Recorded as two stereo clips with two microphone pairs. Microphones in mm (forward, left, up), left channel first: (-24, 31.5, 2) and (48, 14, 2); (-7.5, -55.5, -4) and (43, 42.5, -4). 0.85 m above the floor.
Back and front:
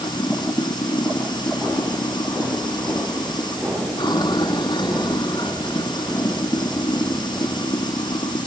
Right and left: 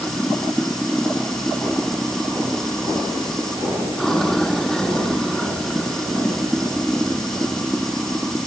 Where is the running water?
155° left.